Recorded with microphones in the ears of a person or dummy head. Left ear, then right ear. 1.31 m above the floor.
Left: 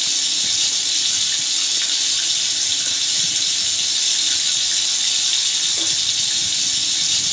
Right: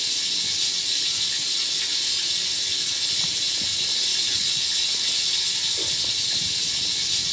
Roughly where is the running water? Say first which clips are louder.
Left 4 dB; left.